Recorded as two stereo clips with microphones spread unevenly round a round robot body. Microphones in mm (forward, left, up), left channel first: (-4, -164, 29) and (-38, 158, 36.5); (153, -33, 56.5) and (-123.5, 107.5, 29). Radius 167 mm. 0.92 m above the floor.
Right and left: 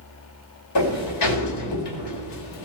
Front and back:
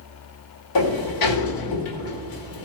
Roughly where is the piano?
No piano in this recording.